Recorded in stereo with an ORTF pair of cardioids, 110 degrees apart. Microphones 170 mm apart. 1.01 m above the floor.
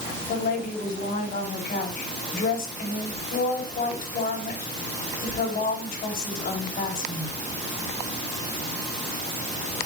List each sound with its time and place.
0.3 s a woman speaking: 60° left, 5.5 m